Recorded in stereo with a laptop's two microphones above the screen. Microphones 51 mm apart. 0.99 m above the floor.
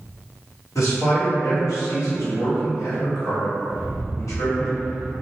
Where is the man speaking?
75° left (ahead or behind), 1.3 m.